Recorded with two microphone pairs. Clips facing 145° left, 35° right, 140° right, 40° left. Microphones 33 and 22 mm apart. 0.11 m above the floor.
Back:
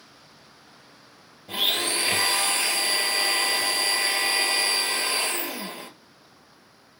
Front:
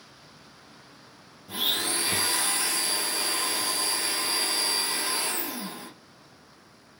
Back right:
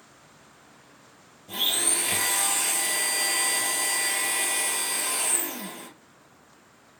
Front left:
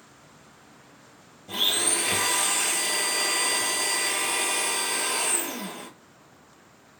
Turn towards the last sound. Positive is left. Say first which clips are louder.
# back 3 dB, front left 2 dB
turn(degrees=115)